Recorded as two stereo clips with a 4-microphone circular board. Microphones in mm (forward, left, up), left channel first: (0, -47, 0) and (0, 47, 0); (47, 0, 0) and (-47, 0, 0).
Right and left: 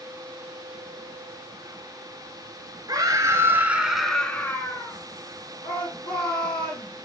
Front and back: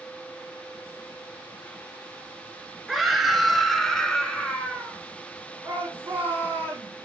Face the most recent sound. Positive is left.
turn(degrees=-110)